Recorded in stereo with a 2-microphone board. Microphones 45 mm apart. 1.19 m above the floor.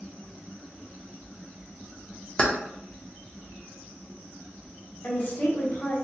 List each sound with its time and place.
2.4 s keys jangling: 30° left (ahead or behind), 0.5 m
5.0 s a woman speaking: 45° left (ahead or behind), 1.0 m